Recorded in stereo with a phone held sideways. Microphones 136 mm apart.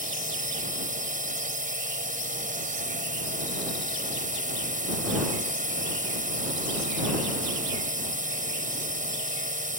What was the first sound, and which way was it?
A drone, 75° right (ahead or behind).